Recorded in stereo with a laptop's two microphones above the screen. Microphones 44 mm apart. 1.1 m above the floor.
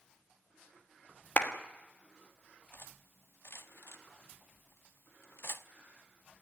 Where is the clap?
45° left (ahead or behind), 1.4 m.